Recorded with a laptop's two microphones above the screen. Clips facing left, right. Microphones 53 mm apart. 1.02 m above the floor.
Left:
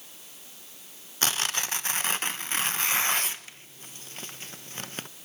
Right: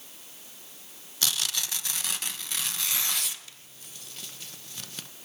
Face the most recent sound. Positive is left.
turn(degrees=35)  # may be behind; listen again after turning